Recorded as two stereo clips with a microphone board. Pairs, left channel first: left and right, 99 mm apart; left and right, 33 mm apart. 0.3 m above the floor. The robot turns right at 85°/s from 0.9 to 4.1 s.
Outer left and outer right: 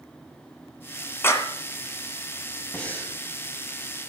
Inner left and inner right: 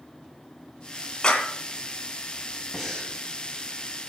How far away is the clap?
About 2 m.